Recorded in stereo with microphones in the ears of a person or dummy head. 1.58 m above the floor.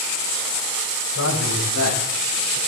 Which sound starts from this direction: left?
A man speaking, at 1.1 s.